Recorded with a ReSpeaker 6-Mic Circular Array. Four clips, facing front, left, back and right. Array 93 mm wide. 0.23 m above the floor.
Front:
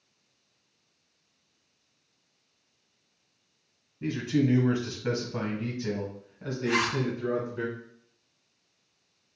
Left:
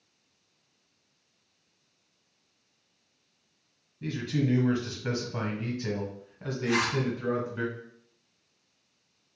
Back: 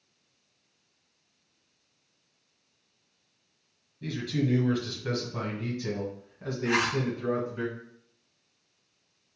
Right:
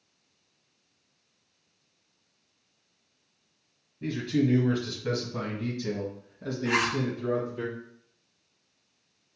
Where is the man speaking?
10° right, 1.2 m; by 7.7 s 100° left, 1.9 m.